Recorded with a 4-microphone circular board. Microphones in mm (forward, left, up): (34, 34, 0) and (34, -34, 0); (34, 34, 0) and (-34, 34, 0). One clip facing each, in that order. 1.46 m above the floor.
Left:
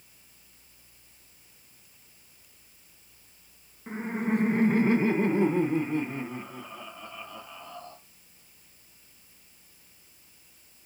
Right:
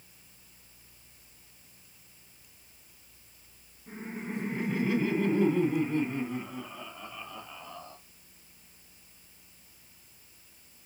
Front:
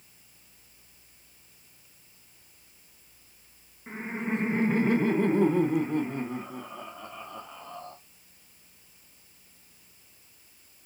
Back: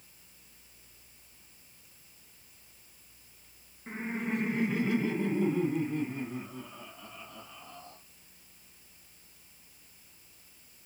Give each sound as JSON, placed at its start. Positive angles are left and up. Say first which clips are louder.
{"t": 3.9, "sound": "laughter", "louder": "left 10 dB, front 2 dB", "azimuth_deg": 80, "distance_m": 0.8}